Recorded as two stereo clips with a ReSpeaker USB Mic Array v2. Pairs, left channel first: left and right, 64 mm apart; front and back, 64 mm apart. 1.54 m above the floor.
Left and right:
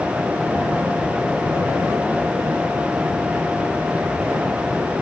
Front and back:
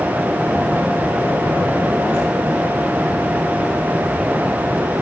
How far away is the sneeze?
I don't hear a sneeze.